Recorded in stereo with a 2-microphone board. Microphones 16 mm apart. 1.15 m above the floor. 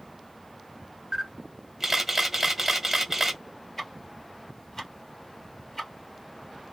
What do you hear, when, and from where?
1.1 s a camera shutter: 20° right (ahead or behind), 0.9 m
3.8 s ticking: 20° left (ahead or behind), 1.4 m